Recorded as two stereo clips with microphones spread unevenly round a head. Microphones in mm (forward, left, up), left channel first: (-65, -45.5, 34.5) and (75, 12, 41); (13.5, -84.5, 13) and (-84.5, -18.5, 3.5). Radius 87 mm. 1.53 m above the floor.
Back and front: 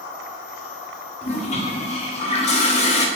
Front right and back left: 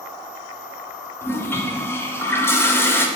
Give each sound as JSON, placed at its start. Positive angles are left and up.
{"t": 1.2, "sound": "a toilet flushing", "azimuth_deg": -105, "distance_m": 0.6}